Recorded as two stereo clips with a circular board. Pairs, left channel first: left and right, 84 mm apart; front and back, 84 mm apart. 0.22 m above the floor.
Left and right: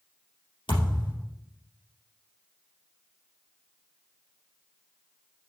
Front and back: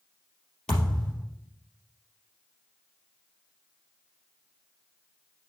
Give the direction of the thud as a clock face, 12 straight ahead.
9 o'clock.